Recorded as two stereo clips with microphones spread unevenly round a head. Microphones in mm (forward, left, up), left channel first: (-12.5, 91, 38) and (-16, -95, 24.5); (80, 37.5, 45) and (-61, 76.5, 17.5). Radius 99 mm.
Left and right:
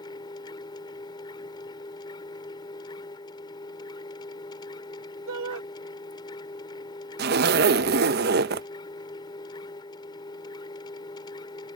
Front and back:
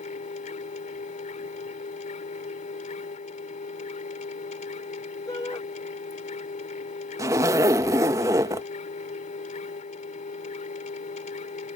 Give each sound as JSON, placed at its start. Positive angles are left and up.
{"t": 0.0, "sound": "a machine running", "azimuth_deg": 20}
{"t": 5.3, "sound": "a shout", "azimuth_deg": -90}
{"t": 7.2, "sound": "a zipper", "azimuth_deg": -115}